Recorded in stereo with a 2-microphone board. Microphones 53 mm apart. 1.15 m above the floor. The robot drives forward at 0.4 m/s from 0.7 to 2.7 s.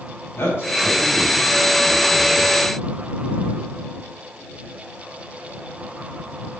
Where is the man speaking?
70° left (ahead or behind), 6.5 m; by 2.5 s 75° left (ahead or behind), 6 m.